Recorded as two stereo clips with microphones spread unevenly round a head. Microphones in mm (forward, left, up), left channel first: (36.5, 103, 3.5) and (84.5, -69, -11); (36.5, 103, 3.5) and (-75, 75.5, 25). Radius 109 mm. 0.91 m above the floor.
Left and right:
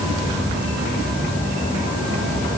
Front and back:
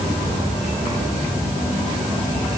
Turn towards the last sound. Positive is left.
No sound to turn to.